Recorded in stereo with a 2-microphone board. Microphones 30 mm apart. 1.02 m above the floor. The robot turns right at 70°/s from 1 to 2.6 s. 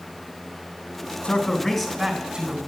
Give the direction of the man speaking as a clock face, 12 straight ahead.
8 o'clock.